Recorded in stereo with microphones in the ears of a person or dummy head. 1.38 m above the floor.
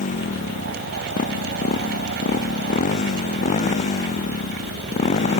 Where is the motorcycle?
40° left (ahead or behind); by 5.4 s 35° left (ahead or behind).